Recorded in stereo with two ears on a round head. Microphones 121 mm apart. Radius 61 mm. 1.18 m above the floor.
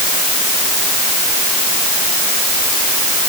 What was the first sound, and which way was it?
Only background noise.